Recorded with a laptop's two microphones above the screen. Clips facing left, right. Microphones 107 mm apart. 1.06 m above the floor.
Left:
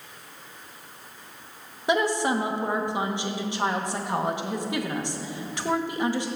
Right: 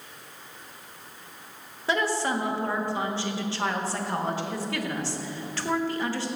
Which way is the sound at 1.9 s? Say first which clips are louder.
Left 3 dB; 20° left (ahead or behind).